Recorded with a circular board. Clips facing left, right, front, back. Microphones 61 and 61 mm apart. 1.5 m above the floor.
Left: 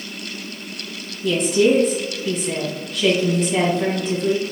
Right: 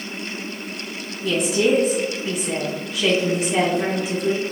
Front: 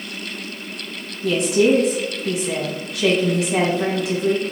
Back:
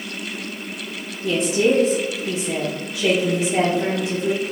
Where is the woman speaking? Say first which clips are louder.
Left 3 dB, front 2 dB; 10° right, 1.9 m.